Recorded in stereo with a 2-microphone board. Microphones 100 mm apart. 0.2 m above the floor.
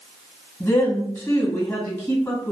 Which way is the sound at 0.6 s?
20° left (ahead or behind).